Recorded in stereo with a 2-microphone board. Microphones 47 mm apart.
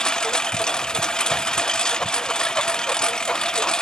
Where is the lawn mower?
20° left (ahead or behind).